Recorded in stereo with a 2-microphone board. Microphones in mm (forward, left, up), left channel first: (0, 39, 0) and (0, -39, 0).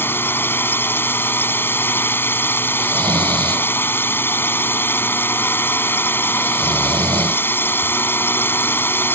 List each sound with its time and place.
0.0 s a drone: 30° left (ahead or behind)
2.8 s snoring: 65° right (ahead or behind)